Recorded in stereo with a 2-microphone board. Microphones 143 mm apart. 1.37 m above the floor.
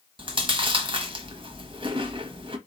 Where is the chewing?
35° right (ahead or behind), 0.8 m.